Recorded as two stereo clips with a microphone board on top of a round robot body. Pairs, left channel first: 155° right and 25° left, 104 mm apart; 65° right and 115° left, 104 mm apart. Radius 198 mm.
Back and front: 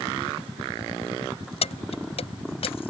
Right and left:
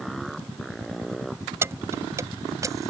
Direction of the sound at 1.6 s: Straight behind.